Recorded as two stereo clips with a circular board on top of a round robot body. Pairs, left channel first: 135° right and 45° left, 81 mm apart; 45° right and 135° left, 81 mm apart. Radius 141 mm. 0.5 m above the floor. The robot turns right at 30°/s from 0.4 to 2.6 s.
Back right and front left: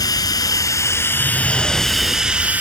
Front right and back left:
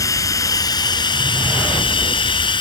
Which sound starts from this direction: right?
Running water, at 0.0 s.